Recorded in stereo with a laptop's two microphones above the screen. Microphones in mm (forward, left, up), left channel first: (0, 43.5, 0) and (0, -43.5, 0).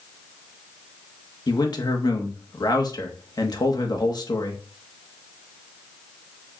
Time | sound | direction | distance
1.5 | a man speaking | 45° left (ahead or behind) | 1.0 m